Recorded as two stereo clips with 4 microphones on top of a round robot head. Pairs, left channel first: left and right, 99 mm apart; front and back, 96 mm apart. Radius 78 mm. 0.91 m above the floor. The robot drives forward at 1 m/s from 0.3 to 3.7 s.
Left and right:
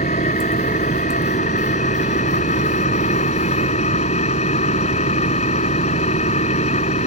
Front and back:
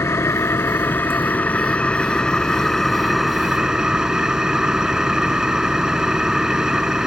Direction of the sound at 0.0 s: 60° left.